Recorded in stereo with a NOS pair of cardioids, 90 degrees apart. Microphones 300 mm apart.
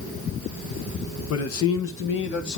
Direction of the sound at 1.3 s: 60° left.